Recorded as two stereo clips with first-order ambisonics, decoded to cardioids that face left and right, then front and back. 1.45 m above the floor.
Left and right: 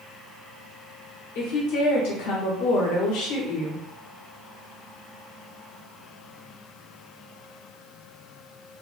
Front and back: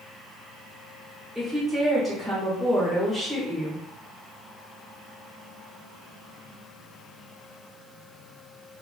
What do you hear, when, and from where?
1.4 s a woman speaking: 95° left, 1.7 m